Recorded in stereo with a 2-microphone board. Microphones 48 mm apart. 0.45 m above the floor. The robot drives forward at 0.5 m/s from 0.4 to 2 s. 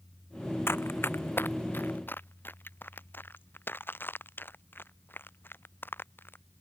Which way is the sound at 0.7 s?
55° left (ahead or behind).